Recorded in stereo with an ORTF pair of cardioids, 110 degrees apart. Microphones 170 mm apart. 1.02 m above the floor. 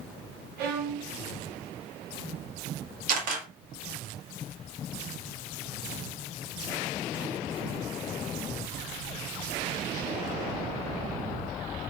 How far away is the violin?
About 0.7 m.